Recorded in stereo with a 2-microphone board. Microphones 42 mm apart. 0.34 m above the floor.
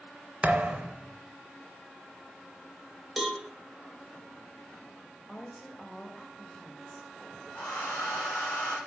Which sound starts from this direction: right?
A thud, at 0.4 s.